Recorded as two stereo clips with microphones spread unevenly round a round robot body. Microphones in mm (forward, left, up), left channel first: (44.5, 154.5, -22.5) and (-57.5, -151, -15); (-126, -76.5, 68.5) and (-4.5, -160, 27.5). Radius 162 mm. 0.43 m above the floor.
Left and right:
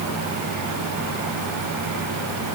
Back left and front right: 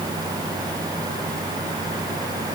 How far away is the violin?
I don't hear a violin.